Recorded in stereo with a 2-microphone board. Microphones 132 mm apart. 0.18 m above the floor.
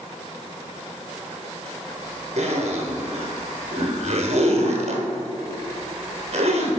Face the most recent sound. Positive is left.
turn(degrees=-60)  # may be behind; listen again after turning